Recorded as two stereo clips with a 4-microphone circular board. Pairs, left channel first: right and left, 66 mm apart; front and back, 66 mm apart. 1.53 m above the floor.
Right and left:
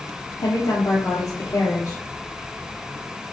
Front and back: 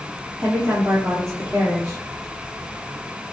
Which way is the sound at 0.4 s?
130° right.